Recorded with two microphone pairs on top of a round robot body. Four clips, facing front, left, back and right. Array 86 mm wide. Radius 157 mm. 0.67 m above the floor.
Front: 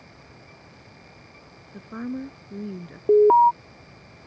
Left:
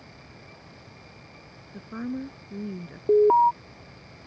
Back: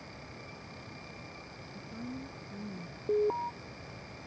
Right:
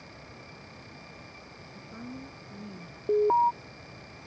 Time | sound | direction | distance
1.7 | a woman speaking | 25° left | ?
3.1 | an alarm | 15° left | ?